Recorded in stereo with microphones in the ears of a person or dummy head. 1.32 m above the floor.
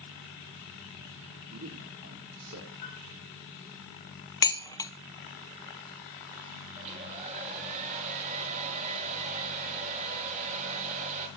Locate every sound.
1.5 s a man speaking: 70° right (ahead or behind), 2 m
2.8 s a piano: 35° left (ahead or behind), 5.5 m
4.4 s dishes clattering: 20° left (ahead or behind), 0.6 m
6.8 s a hair dryer: 40° right (ahead or behind), 1.9 m